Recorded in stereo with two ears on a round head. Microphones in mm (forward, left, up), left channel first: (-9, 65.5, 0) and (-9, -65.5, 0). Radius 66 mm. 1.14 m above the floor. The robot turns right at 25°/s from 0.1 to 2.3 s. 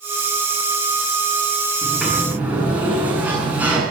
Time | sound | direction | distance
1.8 | a sliding door | centre (ahead or behind) | 8.5 m